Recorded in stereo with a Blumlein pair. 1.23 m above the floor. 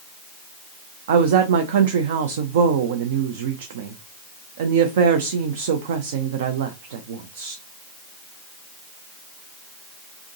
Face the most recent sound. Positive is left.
turn(degrees=-55)